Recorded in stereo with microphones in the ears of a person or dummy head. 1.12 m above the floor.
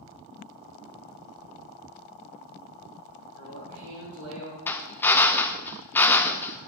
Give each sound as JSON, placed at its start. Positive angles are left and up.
{"t": 3.3, "sound": "a man speaking", "side_deg": -75, "distance_m": 6.0}
{"t": 4.7, "sound": "a drill", "side_deg": 15, "distance_m": 0.6}